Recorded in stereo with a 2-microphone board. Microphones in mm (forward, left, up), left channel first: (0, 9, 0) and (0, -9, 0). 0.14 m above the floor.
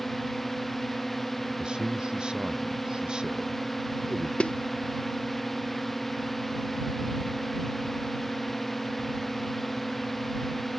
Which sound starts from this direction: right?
A man speaking, at 1.6 s.